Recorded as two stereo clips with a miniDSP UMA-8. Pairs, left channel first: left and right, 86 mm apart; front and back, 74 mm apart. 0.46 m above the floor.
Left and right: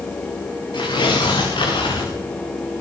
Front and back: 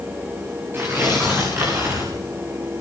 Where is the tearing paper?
120° left, 8 m.